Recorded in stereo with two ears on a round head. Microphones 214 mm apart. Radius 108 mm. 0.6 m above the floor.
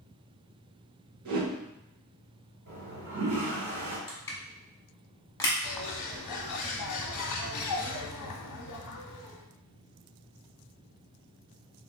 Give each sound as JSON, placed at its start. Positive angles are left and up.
{"t": 1.2, "sound": "a whoosh", "side_deg": -85, "distance_m": 1.1}
{"t": 2.7, "sound": "a toilet flushing", "side_deg": -45, "distance_m": 1.8}
{"t": 4.1, "sound": "crushing", "side_deg": 10, "distance_m": 0.9}
{"t": 5.6, "sound": "a bird", "side_deg": 85, "distance_m": 0.7}